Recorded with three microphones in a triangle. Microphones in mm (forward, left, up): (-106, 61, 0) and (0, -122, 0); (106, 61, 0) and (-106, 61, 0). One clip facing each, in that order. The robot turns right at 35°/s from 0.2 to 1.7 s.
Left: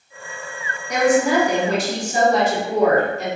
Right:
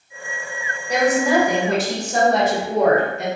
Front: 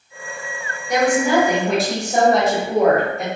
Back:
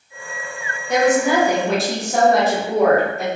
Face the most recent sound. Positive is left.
turn(degrees=-90)